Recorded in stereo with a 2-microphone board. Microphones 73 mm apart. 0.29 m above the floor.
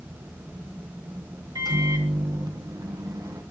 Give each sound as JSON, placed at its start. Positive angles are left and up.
{"t": 1.6, "sound": "a microwave", "side_deg": -60, "distance_m": 1.7}